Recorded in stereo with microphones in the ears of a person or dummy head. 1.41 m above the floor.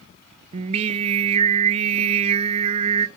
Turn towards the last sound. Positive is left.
turn(degrees=-35)  # may be behind; listen again after turning